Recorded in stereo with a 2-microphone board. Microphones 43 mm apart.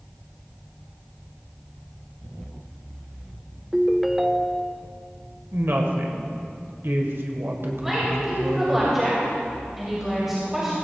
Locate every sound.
3.7 s a ringtone: 5° right (ahead or behind), 0.5 m
5.5 s a woman speaking: 65° right (ahead or behind), 1.7 m
7.8 s a woman speaking: 5° right (ahead or behind), 3 m